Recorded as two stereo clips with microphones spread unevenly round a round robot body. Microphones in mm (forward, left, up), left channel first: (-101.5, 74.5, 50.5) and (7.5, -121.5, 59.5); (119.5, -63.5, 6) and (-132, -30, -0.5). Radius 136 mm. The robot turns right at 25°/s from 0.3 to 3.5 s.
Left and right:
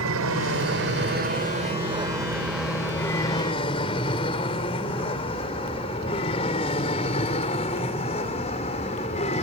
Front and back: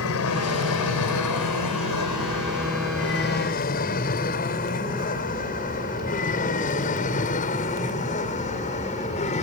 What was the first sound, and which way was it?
An aircraft, 35° right.